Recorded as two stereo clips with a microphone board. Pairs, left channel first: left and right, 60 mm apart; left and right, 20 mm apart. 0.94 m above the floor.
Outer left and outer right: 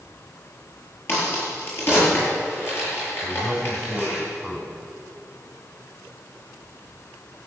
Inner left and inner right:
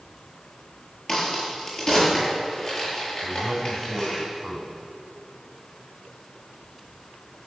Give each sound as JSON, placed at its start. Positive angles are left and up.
{"t": 1.1, "sound": "a crack", "side_deg": 40, "distance_m": 7.5}
{"t": 3.2, "sound": "a man speaking", "side_deg": 10, "distance_m": 4.0}